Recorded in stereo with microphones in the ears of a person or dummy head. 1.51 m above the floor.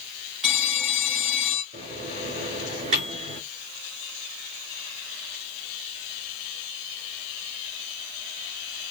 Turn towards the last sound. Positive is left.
turn(degrees=-40)  # may be behind; listen again after turning